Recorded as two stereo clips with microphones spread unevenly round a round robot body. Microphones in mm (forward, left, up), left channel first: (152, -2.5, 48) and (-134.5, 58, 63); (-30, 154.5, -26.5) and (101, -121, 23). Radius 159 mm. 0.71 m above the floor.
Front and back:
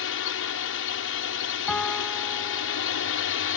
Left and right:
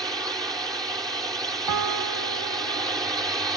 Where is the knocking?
I don't hear knocking.